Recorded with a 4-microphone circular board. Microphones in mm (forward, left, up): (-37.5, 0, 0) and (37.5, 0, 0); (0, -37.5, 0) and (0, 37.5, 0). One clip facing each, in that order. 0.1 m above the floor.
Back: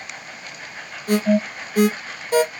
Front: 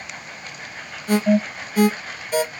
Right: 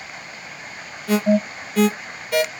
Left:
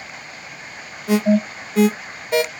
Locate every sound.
1.1 s an alarm: 150° left, 2 m